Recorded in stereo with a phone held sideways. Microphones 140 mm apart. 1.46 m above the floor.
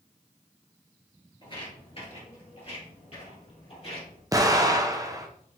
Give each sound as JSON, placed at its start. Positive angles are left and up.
{"t": 1.4, "sound": "footsteps", "side_deg": 35, "distance_m": 1.7}
{"t": 4.3, "sound": "an explosion", "side_deg": -25, "distance_m": 0.6}